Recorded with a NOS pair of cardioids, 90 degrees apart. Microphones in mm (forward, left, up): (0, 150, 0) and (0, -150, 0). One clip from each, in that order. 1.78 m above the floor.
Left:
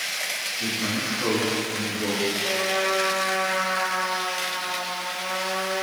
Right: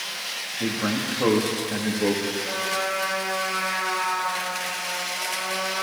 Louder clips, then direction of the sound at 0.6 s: Right 3 dB; 55° right.